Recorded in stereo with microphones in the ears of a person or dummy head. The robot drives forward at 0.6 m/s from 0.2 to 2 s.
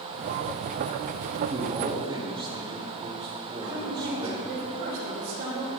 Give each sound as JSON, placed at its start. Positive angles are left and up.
{"t": 1.5, "sound": "a man speaking", "side_deg": -30, "distance_m": 1.5}
{"t": 3.6, "sound": "a woman speaking", "side_deg": -60, "distance_m": 3.0}